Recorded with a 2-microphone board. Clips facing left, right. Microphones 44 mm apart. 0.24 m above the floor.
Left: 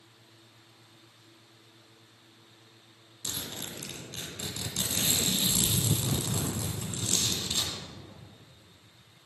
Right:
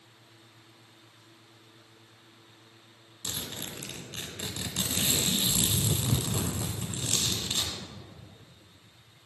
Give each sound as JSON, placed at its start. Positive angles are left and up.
{"t": 3.2, "sound": "a zipper", "side_deg": -20, "distance_m": 1.3}